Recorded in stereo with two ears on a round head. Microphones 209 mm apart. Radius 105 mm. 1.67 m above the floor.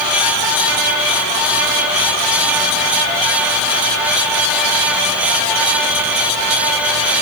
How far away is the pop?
I don't hear a pop.